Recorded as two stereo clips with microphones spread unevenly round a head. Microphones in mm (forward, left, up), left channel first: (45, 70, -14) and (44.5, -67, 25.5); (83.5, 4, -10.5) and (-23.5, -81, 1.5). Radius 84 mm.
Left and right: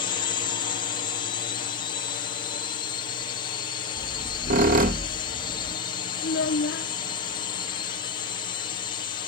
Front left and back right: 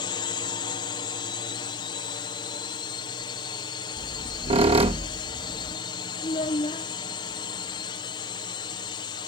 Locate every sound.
0.0 s a drone: 90° left
4.0 s a squeak: 100° right
6.2 s a child speaking: 100° left